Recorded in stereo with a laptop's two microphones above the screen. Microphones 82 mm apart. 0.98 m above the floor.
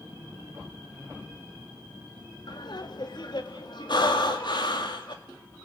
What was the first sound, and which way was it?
Laughter, 60° left (ahead or behind).